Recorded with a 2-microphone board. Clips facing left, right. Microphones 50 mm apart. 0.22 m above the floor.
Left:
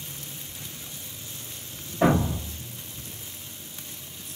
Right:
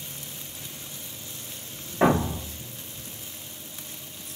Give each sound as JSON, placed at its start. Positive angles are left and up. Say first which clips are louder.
{"t": 2.0, "sound": "a thud", "louder": "even", "side_deg": -55, "distance_m": 2.5}